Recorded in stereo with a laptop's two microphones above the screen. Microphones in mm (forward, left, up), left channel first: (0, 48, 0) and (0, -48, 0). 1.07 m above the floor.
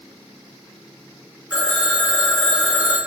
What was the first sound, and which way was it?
A phone ringing, 10° right (ahead or behind).